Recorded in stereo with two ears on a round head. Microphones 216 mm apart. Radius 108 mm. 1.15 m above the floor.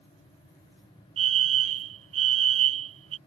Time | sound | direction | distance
1.2 | a fire alarm | 60° right (ahead or behind) | ?